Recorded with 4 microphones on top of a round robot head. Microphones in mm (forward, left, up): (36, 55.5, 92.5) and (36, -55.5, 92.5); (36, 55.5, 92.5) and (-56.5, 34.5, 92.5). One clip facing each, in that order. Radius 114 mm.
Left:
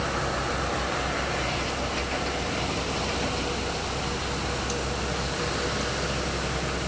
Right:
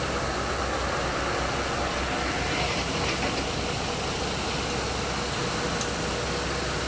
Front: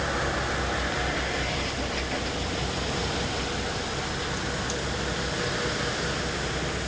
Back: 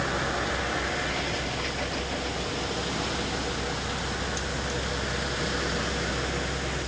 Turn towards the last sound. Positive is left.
No sound to turn to.